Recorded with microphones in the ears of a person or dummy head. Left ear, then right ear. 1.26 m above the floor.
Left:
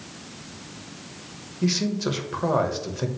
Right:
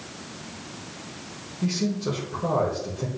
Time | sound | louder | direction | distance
1.6 | a man speaking | left 3 dB | 60° left (ahead or behind) | 1.5 m